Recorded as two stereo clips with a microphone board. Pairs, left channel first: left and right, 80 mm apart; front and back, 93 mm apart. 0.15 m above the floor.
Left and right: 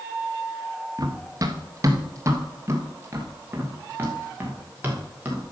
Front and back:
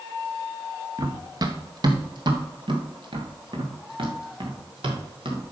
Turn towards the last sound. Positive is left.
turn(degrees=-160)